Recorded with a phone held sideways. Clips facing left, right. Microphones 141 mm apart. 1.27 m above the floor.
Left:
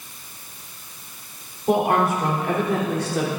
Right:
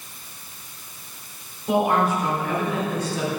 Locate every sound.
1.7 s a woman speaking: 60° left (ahead or behind), 3.5 m; by 3.3 s 85° left, 3 m